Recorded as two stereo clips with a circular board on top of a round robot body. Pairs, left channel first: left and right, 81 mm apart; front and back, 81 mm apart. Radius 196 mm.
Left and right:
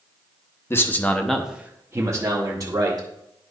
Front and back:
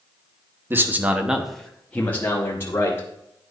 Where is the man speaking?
130° left, 1.3 m; by 3.1 s 55° right, 2 m.